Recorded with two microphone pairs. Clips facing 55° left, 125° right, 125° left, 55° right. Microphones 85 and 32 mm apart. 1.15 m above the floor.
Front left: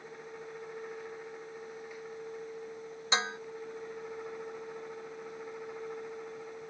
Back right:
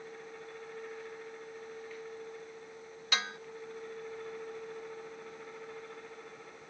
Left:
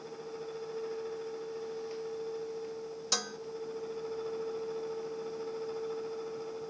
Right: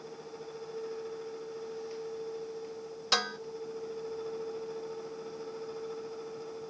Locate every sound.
3.1 s dishes clattering: 10° right